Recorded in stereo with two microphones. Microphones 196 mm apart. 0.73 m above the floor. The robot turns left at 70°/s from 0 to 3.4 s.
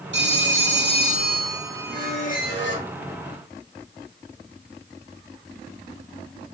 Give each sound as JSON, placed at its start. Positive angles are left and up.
{"t": 0.1, "sound": "a phone ringing", "azimuth_deg": -70, "distance_m": 1.0}
{"t": 1.9, "sound": "a squeak", "azimuth_deg": 165, "distance_m": 1.0}